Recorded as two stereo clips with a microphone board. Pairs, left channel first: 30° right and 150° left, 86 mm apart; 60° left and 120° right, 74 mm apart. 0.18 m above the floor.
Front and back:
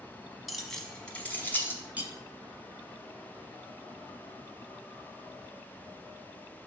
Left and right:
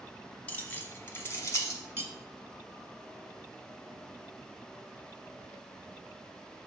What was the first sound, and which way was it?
Keys jangling, 65° left.